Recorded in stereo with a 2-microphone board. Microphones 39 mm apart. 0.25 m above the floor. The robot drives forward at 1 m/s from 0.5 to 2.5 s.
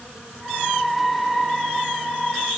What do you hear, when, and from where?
Only background noise.